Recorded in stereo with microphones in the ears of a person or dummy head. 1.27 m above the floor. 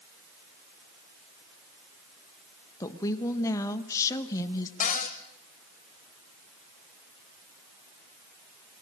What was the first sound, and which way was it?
A woman speaking, 20° left (ahead or behind).